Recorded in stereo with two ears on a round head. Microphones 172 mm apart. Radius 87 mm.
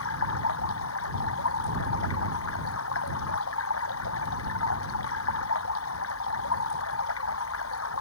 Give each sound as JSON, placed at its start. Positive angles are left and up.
{"t": 0.0, "sound": "running water", "side_deg": 80}